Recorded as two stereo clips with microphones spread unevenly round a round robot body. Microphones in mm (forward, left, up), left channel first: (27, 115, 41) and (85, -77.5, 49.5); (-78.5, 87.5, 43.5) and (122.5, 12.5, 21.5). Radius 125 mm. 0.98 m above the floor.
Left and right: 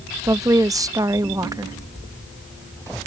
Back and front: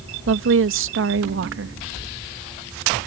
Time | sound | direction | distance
0.3 | a woman speaking | straight ahead | ?